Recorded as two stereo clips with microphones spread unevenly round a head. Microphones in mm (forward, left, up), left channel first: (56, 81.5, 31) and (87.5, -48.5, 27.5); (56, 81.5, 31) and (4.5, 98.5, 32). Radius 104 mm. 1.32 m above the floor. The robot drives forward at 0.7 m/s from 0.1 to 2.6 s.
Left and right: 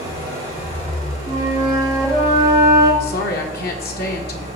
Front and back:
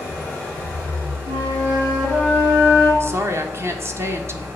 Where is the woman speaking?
120° left, 1.3 m.